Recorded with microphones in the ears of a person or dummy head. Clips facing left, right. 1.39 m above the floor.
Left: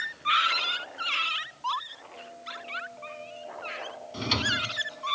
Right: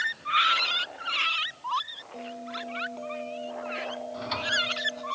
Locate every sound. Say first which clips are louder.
2.1 s a bell: right 8 dB; 65° right (ahead or behind)
4.1 s a drawer: left 1 dB; 50° left (ahead or behind)